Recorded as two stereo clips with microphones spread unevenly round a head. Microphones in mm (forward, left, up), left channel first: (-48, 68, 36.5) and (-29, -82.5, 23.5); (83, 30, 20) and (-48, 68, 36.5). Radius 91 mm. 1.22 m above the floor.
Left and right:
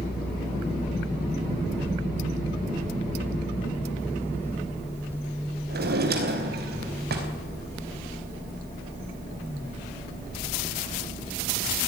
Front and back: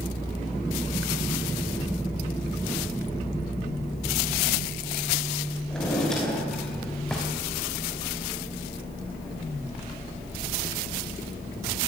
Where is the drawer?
105° right, 4.5 m.